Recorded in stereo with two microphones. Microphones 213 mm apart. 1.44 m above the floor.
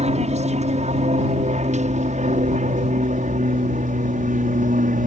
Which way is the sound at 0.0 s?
30° right (ahead or behind).